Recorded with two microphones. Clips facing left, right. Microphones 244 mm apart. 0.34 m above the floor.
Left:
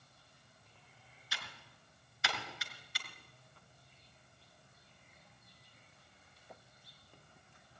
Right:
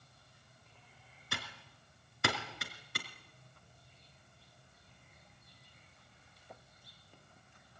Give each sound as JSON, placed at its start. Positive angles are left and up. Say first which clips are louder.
{"t": 1.3, "sound": "typing on a keyboard", "louder": "right 8 dB", "side_deg": -55, "distance_m": 3.0}